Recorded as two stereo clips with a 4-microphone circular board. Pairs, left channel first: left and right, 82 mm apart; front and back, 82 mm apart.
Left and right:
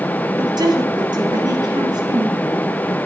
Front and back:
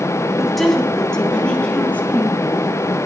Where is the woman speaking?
90° right, 1.9 m; by 2.4 s 70° right, 3 m.